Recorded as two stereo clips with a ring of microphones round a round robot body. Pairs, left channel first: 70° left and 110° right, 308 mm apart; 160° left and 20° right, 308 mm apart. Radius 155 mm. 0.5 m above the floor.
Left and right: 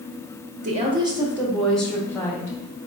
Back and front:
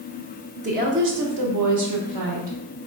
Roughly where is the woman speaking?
Right.